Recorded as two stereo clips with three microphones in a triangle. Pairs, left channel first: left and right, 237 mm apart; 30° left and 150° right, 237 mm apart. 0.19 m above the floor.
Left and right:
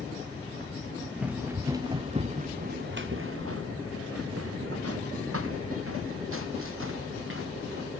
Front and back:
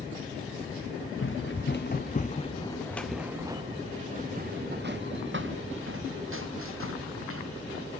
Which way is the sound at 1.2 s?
5° right.